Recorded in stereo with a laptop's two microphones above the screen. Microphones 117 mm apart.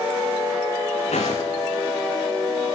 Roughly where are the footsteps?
Left.